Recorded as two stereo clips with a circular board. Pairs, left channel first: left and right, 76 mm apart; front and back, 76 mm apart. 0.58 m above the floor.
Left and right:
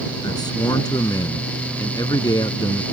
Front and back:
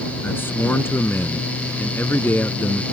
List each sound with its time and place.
0.2 s a man speaking: 60° left